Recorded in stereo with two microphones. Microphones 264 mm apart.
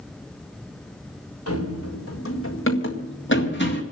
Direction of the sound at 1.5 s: 60° left (ahead or behind).